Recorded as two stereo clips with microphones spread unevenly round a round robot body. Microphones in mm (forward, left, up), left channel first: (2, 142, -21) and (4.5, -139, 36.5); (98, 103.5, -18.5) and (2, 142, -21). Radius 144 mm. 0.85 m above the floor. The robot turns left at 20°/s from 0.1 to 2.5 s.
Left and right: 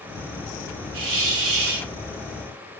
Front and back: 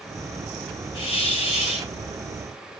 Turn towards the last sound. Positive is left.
turn(degrees=-130)